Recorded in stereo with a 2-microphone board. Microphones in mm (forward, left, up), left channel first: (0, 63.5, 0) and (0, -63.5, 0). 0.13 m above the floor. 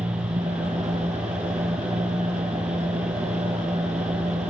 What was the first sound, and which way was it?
An engine running, 65° right (ahead or behind).